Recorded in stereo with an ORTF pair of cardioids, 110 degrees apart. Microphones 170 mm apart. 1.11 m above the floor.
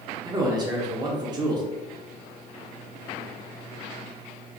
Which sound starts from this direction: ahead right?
A man speaking, at 0.2 s.